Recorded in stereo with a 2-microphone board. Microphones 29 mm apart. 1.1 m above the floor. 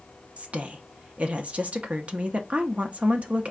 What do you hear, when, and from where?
0.4 s a woman speaking: 50° right (ahead or behind), 0.6 m